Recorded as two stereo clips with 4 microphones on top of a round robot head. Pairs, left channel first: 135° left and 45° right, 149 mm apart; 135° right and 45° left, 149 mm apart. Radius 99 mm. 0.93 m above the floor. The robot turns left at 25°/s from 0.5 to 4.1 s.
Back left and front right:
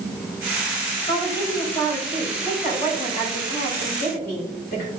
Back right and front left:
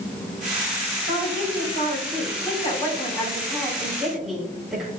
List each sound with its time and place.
1.1 s a woman speaking: 155° right, 3 m; by 4.9 s 130° left, 3 m